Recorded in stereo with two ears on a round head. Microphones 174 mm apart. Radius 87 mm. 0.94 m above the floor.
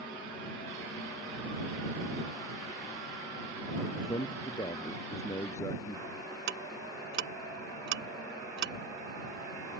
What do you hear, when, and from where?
4.0 s a man speaking: 20° left (ahead or behind); by 6.0 s 15° left (ahead or behind)
6.5 s ticking: 65° right (ahead or behind)